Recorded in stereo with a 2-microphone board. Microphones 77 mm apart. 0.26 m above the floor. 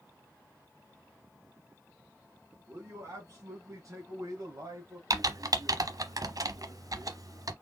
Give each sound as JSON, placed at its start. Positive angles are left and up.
{"t": 2.7, "sound": "a man speaking", "side_deg": -45, "distance_m": 2.5}
{"t": 5.1, "sound": "typing on a keyboard", "side_deg": -60, "distance_m": 0.8}